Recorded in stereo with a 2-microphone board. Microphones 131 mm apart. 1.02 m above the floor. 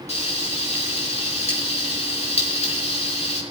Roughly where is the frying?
Left.